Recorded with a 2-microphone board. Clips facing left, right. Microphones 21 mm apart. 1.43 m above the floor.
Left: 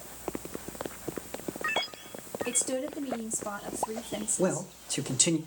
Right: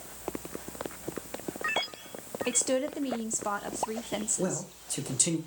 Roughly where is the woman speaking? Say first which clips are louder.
Right 4 dB; right.